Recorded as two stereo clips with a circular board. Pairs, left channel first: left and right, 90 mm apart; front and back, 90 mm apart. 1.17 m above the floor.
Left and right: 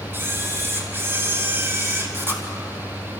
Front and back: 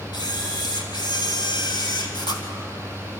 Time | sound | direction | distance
0.1 | a camera shutter | 25° right | 2.5 m